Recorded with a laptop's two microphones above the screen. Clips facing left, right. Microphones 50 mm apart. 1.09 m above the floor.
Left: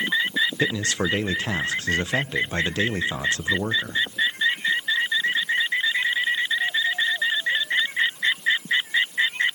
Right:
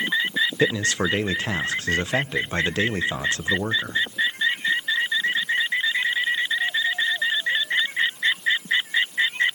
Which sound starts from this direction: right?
A man speaking, at 0.6 s.